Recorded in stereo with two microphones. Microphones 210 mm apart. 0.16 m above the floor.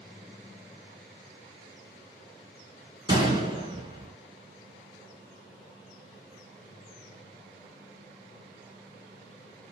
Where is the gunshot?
25° right (ahead or behind), 1.3 m.